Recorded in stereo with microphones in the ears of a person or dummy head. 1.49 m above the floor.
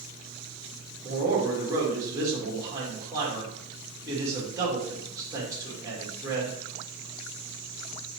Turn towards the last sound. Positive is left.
turn(degrees=-15)  # may be behind; listen again after turning